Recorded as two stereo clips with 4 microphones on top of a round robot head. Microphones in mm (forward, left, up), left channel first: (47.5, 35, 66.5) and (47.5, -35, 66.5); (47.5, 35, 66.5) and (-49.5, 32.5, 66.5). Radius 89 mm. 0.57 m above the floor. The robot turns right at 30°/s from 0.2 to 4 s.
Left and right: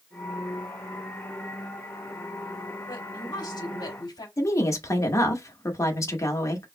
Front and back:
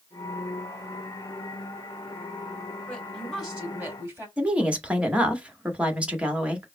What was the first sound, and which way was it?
A woman speaking, 80° left.